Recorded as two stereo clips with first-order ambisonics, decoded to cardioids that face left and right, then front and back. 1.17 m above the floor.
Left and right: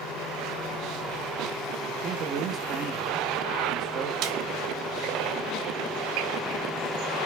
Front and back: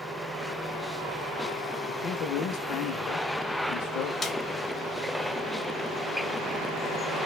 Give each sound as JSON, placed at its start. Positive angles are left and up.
{"t": 1.9, "sound": "a man speaking", "azimuth_deg": -40, "distance_m": 0.6}
{"t": 4.2, "sound": "a snare drum", "azimuth_deg": -80, "distance_m": 0.5}